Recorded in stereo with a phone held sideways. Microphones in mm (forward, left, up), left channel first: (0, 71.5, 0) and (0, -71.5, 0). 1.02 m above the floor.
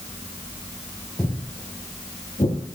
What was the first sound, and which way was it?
Footsteps, 10° left (ahead or behind).